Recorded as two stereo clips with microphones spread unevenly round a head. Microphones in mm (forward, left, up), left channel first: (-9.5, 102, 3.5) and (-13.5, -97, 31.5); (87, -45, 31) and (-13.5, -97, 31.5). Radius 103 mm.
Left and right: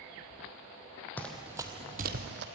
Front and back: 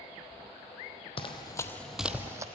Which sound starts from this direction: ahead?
Running footsteps, at 1.2 s.